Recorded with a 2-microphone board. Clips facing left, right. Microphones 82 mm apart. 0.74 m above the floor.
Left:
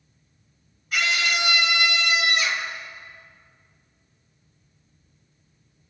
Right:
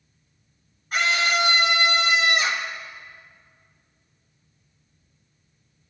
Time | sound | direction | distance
0.9 | a scream | 40° right (ahead or behind) | 3.5 m